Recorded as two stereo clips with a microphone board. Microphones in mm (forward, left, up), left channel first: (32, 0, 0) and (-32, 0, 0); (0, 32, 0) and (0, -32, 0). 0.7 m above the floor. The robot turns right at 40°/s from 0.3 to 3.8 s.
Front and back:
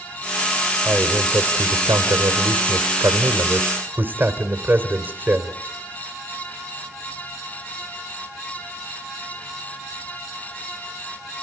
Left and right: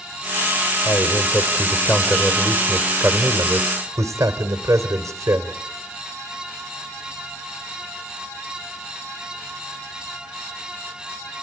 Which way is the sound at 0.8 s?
120° left.